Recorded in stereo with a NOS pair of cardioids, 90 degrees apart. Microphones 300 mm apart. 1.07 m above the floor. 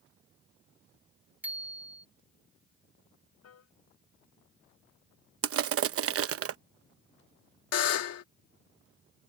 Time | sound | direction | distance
1.4 | a bicycle bell | 5° right | ?
3.4 | a piano | 55° left | ?
5.4 | crushing | 50° right | ?
7.7 | a buzzer | 55° left | ?